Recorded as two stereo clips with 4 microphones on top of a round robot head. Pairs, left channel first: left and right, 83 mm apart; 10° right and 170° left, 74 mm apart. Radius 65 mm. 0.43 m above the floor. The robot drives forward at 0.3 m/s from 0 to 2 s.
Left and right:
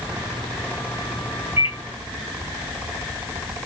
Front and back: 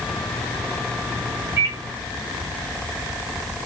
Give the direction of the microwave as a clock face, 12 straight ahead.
5 o'clock.